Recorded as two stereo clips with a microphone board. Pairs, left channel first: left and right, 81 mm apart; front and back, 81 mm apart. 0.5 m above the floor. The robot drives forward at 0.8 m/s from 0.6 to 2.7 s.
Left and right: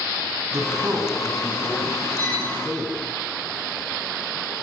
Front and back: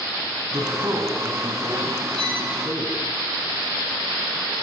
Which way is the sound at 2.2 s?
160° left.